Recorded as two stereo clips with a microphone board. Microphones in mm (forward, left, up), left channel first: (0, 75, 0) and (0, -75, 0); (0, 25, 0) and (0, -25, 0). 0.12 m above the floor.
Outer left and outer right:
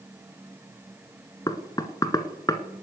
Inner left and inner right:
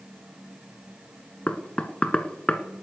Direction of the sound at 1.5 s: 25° left (ahead or behind).